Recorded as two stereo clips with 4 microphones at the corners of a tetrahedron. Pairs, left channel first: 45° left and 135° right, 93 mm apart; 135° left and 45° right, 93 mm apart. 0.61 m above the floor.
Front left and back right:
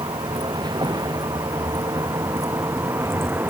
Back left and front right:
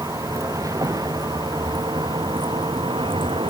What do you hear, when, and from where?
0.0 s a vehicle: 100° right; by 3.5 s 70° right